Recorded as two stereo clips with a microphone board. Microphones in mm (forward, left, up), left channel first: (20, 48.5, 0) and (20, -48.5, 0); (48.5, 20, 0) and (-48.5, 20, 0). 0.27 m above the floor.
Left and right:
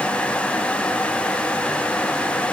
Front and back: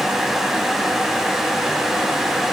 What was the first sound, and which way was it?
Only background noise.